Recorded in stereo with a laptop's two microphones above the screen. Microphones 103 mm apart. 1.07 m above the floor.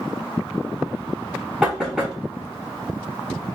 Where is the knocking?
5° right (ahead or behind), 1.2 m.